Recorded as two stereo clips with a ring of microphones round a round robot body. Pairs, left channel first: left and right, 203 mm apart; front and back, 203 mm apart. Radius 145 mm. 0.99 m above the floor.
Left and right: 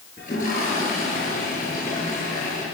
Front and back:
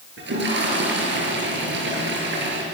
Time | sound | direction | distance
0.2 | a toilet flushing | 155° left | 7.5 m